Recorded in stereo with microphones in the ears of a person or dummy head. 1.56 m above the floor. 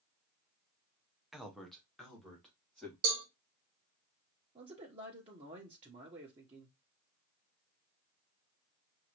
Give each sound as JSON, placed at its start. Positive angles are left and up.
{"t": 1.3, "sound": "a man speaking", "side_deg": 0, "distance_m": 0.9}
{"t": 3.0, "sound": "a cowbell", "side_deg": -55, "distance_m": 1.5}
{"t": 4.5, "sound": "a man speaking", "side_deg": -30, "distance_m": 1.1}